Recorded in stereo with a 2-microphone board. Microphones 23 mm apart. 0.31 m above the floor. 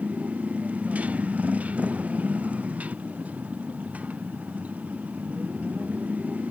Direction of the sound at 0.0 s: 80° right.